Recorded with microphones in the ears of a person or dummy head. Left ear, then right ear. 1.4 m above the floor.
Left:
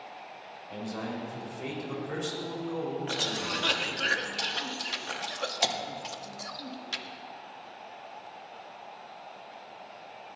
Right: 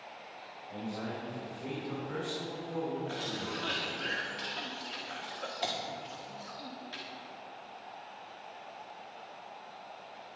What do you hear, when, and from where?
0.7 s a man speaking: 70° left (ahead or behind), 4.5 m; by 4.1 s 85° left, 5 m
3.1 s a cough: 75° left (ahead or behind), 1.5 m